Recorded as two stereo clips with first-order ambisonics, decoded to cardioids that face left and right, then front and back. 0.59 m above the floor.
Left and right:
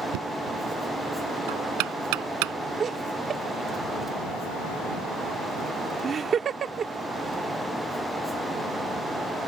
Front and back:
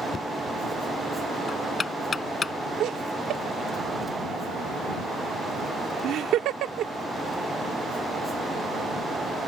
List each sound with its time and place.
0.1 s knocking: 75° right
2.8 s laughter: 150° right